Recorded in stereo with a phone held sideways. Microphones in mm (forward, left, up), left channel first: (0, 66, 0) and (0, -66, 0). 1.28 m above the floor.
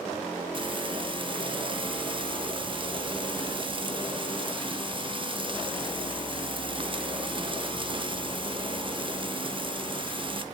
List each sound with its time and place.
0.5 s frying: 40° right (ahead or behind), 1.2 m